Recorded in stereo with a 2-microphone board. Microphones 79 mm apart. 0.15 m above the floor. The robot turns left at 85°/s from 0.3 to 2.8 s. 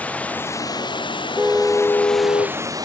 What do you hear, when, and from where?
0.0 s running water: 160° left; by 2.9 s 50° right
1.4 s a car horn: 160° right; by 2.6 s 95° left